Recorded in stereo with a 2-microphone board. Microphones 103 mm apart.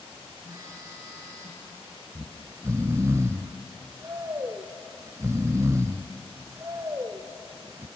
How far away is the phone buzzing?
About 8.5 m.